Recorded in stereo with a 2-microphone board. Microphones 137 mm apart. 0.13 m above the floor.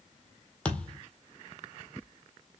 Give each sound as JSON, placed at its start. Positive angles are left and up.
{"t": 0.7, "sound": "a thud", "side_deg": 10, "distance_m": 1.4}